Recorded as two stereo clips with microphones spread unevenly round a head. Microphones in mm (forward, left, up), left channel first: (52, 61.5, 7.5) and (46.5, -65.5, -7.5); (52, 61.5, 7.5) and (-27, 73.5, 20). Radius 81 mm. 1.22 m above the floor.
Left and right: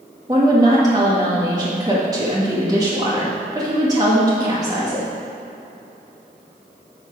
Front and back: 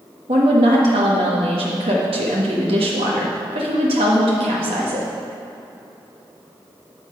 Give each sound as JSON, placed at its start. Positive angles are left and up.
{"t": 0.3, "sound": "a woman speaking", "azimuth_deg": -160, "distance_m": 1.4}